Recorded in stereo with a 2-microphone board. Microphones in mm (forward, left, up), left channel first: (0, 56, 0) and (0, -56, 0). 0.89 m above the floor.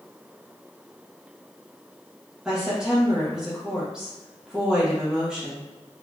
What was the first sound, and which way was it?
A woman speaking, 5° right (ahead or behind).